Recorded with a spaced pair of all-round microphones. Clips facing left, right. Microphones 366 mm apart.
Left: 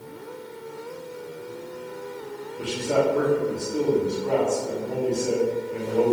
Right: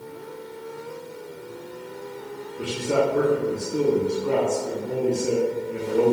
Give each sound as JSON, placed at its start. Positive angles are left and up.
{"t": 2.6, "sound": "a man speaking", "side_deg": -30, "distance_m": 1.3}